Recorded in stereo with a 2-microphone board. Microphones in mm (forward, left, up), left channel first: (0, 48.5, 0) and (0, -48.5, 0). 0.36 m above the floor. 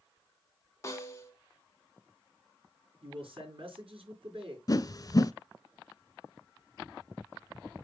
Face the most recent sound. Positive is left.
turn(degrees=40)  # may be behind; listen again after turning